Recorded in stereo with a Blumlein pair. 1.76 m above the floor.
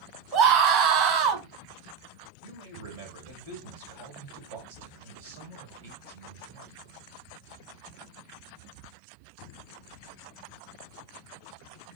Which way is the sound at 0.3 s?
35° right.